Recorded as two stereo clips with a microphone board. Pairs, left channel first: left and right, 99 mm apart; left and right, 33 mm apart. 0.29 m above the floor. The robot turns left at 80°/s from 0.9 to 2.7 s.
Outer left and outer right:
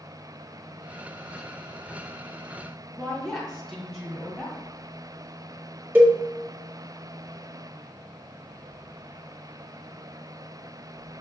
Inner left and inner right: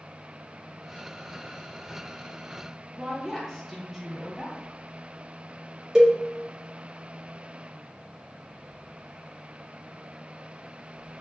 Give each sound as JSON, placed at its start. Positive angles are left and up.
{"t": 3.0, "sound": "a woman speaking", "side_deg": 0, "distance_m": 1.6}
{"t": 6.0, "sound": "a cowbell", "side_deg": -20, "distance_m": 0.9}